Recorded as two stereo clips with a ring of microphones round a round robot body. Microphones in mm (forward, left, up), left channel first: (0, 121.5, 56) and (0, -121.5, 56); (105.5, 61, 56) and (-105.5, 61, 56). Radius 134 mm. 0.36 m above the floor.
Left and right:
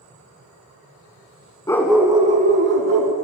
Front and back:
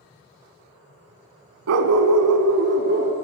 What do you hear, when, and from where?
1.7 s a dog barking: 170° left, 0.8 m; by 3.1 s 120° right, 1.2 m